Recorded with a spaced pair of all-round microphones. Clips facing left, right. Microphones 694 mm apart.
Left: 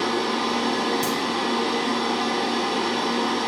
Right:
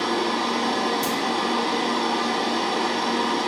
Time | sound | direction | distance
0.0 | a machine running | 10° right (ahead or behind) | 1.5 m
1.0 | a crack | 25° left (ahead or behind) | 1.0 m